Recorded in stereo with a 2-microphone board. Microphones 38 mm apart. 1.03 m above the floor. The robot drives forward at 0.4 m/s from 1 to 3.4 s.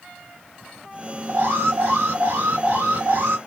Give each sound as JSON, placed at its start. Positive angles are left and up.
{"t": 1.3, "sound": "an alarm", "side_deg": -65, "distance_m": 1.9}